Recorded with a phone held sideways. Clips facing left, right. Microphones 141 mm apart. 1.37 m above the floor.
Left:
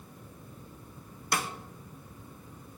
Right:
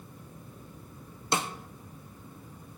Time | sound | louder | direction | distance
1.3 | a snare drum | right 2 dB | 25° right (ahead or behind) | 0.5 m